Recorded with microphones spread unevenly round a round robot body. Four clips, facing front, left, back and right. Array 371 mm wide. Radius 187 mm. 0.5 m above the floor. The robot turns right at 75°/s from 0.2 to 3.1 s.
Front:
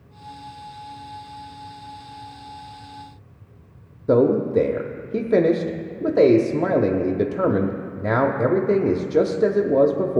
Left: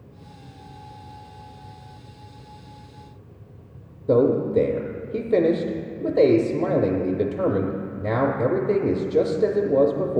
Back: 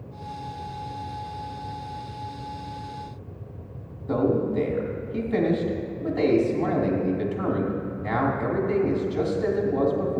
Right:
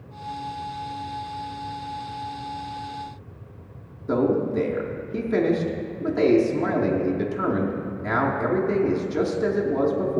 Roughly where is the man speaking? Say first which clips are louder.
Left 3 dB, front 6 dB; ahead left.